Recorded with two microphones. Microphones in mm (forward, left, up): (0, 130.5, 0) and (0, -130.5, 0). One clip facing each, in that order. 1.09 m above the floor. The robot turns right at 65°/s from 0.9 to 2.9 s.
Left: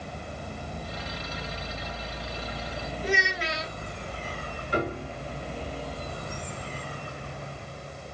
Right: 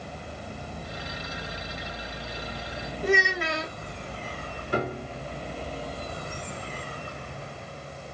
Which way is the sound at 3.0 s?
55° right (ahead or behind).